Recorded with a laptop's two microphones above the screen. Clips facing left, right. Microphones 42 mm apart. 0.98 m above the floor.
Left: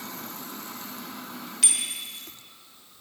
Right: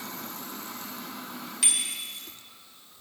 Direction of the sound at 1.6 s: 5° right (ahead or behind).